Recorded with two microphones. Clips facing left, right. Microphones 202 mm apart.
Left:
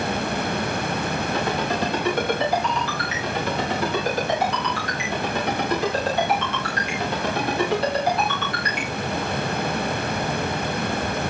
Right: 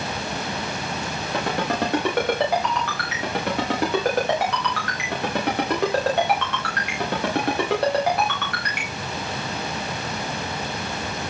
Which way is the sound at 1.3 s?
60° right (ahead or behind).